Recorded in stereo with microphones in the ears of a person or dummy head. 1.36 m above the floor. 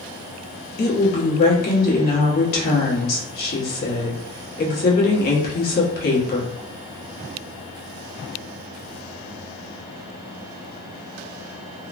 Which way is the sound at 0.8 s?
50° left (ahead or behind).